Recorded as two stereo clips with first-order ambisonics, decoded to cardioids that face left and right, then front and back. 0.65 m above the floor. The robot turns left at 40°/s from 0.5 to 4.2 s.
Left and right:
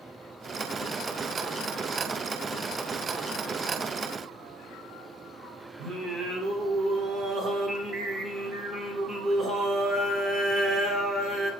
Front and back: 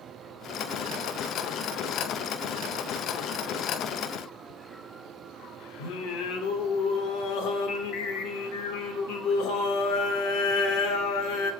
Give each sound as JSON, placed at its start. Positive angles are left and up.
{"t": 5.8, "sound": "singing", "azimuth_deg": -25, "distance_m": 0.9}